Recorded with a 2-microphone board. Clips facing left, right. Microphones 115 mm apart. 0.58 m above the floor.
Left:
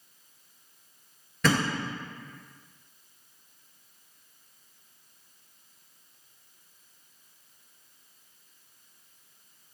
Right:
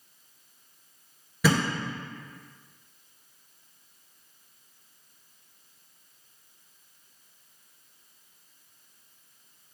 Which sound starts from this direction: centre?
A thud, at 1.4 s.